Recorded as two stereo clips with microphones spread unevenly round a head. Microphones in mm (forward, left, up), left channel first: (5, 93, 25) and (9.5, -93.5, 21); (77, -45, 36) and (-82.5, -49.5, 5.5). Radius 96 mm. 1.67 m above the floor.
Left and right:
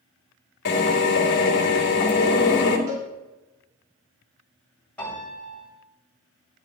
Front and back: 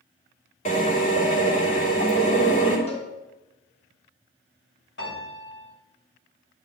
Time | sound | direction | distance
0.7 | a drill | 55° left | 3.5 m
2.9 | a cowbell | 40° right | 4 m
5.0 | a piano | 10° left | 8 m